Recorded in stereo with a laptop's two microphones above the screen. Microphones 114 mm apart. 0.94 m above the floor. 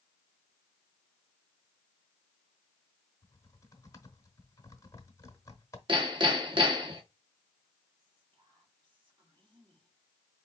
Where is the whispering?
50° right (ahead or behind), 2.5 m.